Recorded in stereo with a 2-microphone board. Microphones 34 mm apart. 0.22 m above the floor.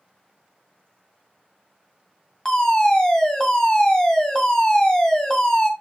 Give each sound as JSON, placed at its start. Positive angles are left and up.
{"t": 2.5, "sound": "a fire alarm", "side_deg": 20, "distance_m": 2.0}